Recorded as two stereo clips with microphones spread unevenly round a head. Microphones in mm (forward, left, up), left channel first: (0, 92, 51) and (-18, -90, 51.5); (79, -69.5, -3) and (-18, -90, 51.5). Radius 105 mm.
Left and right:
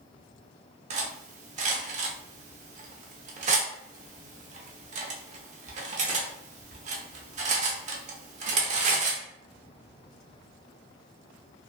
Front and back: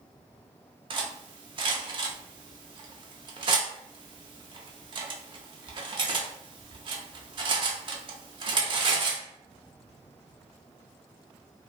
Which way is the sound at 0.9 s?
150° right.